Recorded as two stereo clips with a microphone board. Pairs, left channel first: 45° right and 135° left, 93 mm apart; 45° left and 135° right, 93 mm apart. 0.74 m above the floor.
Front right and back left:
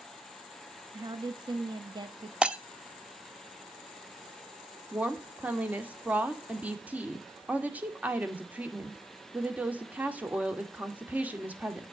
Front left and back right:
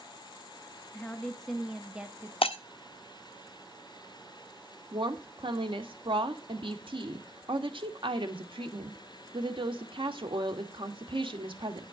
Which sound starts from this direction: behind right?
A woman speaking, at 4.9 s.